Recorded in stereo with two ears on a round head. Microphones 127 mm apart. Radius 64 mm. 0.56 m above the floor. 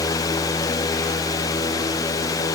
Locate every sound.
Only background noise.